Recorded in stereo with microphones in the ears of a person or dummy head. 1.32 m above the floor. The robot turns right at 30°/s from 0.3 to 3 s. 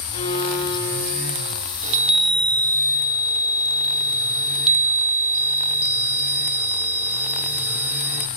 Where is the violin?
145° left, 9 m; by 1.6 s straight behind, 9 m.